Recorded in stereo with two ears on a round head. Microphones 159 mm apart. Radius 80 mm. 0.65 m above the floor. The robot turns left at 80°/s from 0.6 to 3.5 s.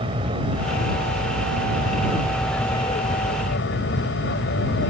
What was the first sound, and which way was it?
An aircraft, 30° right.